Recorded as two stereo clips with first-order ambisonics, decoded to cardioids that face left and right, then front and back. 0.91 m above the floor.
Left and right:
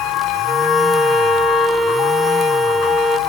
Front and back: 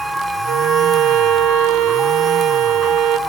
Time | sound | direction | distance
0.5 | a violin | 165° right | 1.7 m